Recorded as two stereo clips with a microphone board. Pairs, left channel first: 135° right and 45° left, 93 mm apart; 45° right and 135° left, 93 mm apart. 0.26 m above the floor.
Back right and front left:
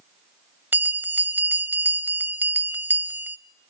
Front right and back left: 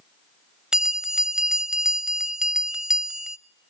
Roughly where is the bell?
Ahead left.